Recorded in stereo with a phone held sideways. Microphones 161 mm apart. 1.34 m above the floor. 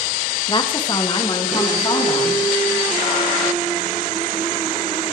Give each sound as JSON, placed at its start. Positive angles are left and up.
{"t": 0.5, "sound": "a woman speaking", "side_deg": 30, "distance_m": 1.0}